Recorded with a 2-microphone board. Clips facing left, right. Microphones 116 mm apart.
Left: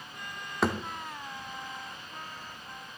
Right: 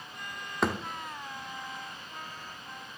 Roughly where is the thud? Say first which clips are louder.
Left 1 dB; centre.